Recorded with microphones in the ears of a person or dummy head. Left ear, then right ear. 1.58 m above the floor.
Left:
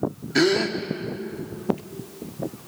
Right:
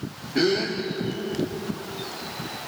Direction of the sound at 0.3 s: 75° left (ahead or behind).